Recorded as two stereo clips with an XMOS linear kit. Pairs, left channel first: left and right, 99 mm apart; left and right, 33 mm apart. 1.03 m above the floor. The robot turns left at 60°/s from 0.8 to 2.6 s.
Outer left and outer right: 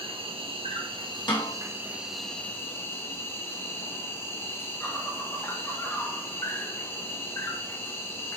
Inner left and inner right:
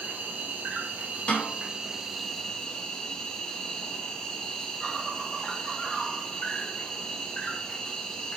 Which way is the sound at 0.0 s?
100° right.